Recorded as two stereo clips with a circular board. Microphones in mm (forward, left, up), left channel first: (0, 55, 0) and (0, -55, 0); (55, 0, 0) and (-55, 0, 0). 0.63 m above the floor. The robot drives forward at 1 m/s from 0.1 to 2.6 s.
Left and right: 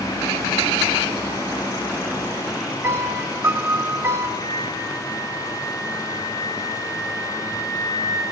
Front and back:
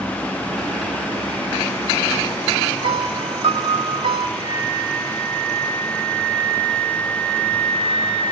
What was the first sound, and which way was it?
A piano, 155° right.